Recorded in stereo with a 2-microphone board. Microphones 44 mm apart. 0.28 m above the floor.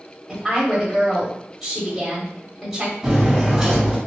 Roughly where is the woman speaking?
Centre.